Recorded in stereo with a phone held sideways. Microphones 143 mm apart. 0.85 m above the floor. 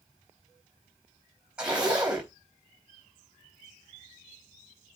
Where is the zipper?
5° right (ahead or behind), 4 m.